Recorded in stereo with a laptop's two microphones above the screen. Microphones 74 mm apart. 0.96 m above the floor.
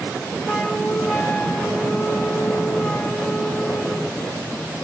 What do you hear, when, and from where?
0.5 s a flute: 5° left (ahead or behind), 0.9 m